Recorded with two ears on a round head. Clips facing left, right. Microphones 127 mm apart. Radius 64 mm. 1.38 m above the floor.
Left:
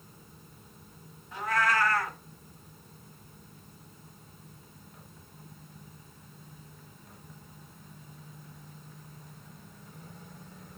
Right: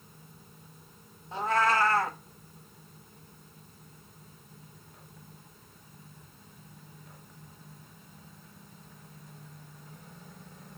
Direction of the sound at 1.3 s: 25° right (ahead or behind).